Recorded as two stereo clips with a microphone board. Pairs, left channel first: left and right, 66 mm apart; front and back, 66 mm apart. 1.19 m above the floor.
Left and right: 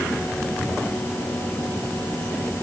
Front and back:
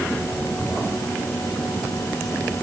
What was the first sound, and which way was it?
Only background noise.